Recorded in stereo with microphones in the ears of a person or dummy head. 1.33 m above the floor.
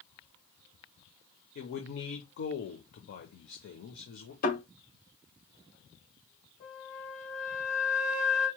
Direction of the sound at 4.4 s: 45° left (ahead or behind).